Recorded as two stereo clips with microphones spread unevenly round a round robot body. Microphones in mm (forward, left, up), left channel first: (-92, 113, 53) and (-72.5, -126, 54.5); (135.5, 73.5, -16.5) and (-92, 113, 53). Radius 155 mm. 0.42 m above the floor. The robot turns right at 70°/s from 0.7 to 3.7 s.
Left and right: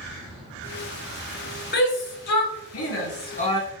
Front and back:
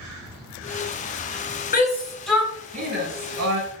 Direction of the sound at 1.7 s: 35° left.